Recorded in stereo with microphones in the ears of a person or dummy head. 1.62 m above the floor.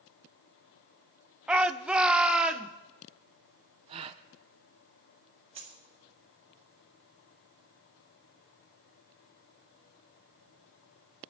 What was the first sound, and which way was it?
A shout, centre (ahead or behind).